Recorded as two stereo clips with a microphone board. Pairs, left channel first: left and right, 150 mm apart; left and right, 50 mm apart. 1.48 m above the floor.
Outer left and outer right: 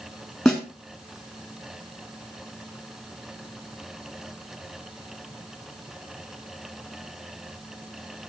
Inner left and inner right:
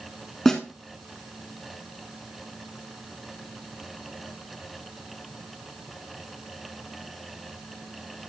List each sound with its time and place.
0.5 s a snare drum: centre (ahead or behind), 3.5 m